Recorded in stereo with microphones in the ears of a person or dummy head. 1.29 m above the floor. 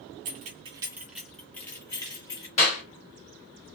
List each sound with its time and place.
0.2 s keys jangling: 50° right (ahead or behind), 0.5 m; by 2.5 s 20° left (ahead or behind), 1.3 m
2.6 s a clap: 40° left (ahead or behind), 1.4 m